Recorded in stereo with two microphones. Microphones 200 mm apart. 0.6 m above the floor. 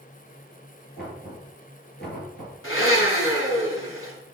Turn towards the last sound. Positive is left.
turn(degrees=80)